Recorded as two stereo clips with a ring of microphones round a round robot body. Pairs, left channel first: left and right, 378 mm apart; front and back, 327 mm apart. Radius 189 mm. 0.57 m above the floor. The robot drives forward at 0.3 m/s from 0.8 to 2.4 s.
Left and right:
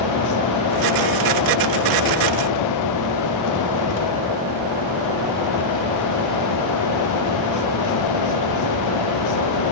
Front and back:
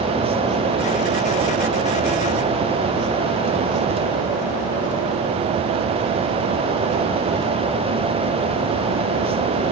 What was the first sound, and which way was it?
Only background noise.